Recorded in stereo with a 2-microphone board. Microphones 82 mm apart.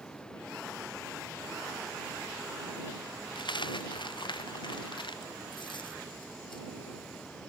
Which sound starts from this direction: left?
A dropped coin, at 3.4 s.